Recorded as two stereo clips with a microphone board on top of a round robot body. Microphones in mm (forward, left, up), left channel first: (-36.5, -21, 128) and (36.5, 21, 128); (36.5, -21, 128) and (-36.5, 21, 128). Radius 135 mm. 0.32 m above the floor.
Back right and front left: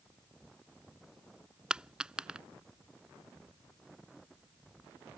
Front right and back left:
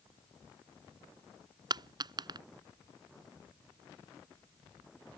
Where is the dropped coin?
110° left.